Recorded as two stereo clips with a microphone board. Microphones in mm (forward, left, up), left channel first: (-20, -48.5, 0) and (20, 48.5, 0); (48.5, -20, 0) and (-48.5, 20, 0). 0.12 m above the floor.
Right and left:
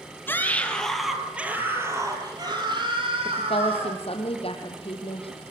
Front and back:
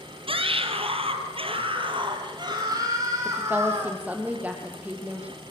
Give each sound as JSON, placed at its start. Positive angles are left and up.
{"t": 0.3, "sound": "a scream", "azimuth_deg": 180, "distance_m": 2.5}
{"t": 3.2, "sound": "a woman speaking", "azimuth_deg": -130, "distance_m": 4.5}